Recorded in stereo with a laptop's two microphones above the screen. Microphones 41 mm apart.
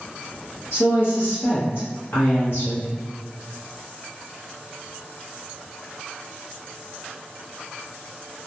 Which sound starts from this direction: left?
A woman speaking, at 0.7 s.